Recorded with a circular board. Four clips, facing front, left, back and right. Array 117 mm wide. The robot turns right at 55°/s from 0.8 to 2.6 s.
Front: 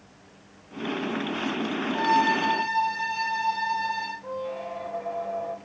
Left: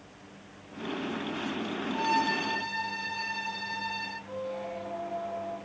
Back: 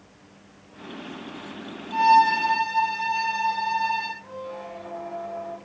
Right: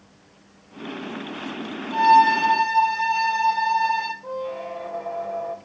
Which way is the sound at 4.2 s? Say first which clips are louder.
Right 6 dB, front 3 dB; 70° right.